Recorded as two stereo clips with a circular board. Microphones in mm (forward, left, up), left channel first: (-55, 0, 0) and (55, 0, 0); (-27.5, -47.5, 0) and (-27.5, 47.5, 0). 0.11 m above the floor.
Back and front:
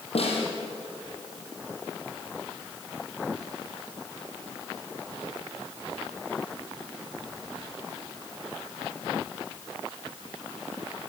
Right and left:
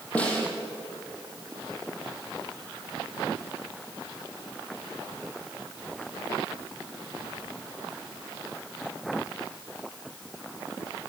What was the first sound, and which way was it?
A snare drum, 165° right.